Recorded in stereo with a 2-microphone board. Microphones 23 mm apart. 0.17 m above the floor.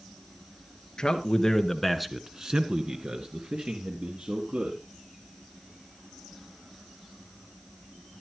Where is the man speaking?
35° left (ahead or behind), 2 m; by 4.8 s 75° right (ahead or behind), 4 m.